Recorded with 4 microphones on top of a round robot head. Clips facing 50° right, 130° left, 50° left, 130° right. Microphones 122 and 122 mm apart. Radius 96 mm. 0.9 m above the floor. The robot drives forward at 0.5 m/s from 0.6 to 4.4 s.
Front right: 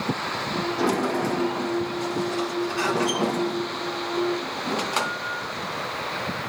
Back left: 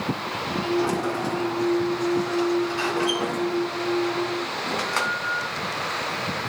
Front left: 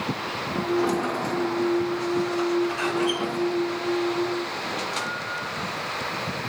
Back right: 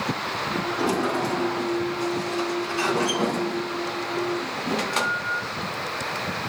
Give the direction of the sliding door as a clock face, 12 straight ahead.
1 o'clock.